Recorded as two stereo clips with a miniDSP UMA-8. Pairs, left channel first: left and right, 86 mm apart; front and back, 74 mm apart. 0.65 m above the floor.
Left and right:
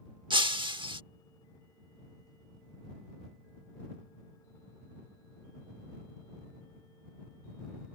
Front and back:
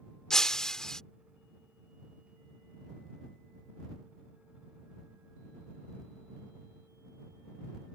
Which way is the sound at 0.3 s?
80° right.